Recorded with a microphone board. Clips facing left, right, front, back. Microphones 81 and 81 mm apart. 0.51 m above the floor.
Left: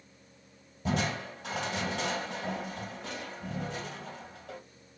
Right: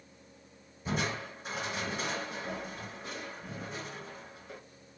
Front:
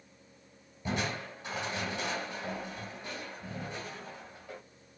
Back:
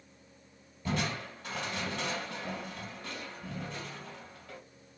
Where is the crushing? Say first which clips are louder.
Left 3 dB, even; 70° left, 2.5 m.